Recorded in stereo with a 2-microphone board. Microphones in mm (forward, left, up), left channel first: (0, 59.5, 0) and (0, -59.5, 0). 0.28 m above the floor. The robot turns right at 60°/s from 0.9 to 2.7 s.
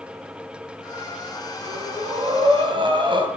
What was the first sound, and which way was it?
Breathing, 135° right.